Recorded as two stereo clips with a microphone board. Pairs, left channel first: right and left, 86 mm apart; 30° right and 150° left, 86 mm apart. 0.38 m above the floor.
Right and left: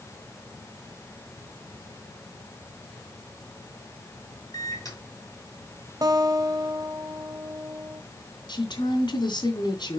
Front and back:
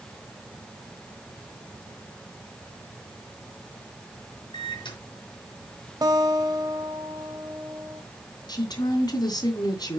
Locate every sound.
4.5 s a microwave: 40° right, 4 m
6.0 s a guitar: 125° left, 1.6 m
8.5 s a woman speaking: 60° right, 2.5 m